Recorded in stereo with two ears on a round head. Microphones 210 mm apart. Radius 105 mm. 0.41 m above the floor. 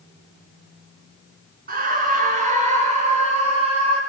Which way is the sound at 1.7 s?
40° right (ahead or behind).